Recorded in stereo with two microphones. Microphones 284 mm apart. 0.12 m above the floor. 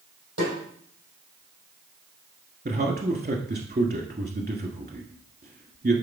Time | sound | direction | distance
0.4 | a snare drum | 70° right (ahead or behind) | 5 m
2.6 | a man speaking | 35° right (ahead or behind) | 1.3 m